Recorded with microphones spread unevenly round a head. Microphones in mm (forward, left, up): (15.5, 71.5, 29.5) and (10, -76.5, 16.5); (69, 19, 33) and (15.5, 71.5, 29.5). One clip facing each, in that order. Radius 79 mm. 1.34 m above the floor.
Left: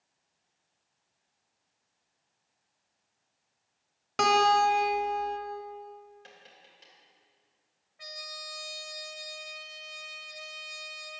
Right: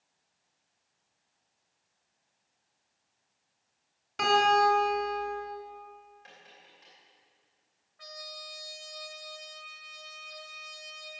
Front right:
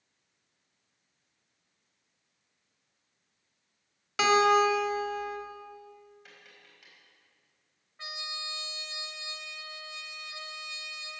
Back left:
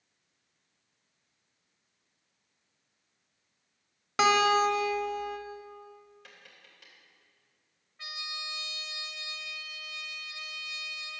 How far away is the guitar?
About 1.4 m.